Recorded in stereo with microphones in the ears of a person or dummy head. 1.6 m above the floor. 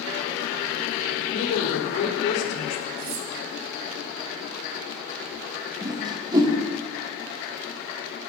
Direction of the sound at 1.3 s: 80° left.